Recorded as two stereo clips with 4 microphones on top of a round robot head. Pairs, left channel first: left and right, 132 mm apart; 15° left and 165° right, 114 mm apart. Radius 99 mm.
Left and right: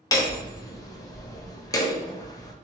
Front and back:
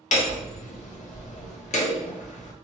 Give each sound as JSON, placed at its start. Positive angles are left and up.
{"t": 0.1, "sound": "hammering", "azimuth_deg": 25, "distance_m": 0.9}